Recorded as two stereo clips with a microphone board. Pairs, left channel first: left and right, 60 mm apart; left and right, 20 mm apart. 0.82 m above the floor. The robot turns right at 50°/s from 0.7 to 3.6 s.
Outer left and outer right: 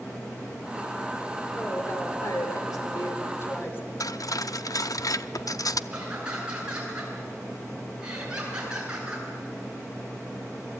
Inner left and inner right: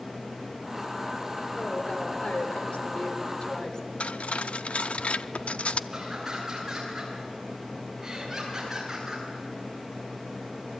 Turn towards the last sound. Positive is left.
turn(degrees=-15)  # may be behind; listen again after turning